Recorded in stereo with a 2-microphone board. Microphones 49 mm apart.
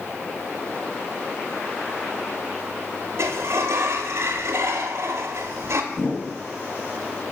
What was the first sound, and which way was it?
A sliding door, 65° right (ahead or behind).